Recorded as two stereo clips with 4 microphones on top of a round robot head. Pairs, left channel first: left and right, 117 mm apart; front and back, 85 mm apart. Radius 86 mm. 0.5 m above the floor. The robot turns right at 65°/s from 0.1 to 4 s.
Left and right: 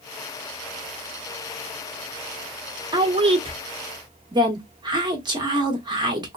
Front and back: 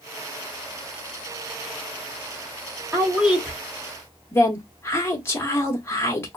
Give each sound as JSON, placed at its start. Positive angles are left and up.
{"t": 2.9, "sound": "a woman speaking", "azimuth_deg": -125, "distance_m": 1.1}